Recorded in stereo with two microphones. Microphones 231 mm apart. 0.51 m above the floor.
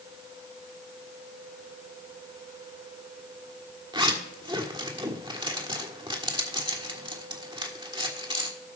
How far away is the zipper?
About 1.5 m.